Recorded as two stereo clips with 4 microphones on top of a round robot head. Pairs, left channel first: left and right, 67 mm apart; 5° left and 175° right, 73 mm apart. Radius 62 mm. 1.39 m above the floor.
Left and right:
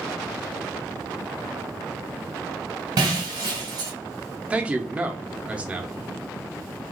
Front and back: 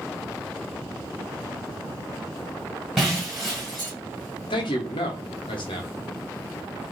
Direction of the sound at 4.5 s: 20° right.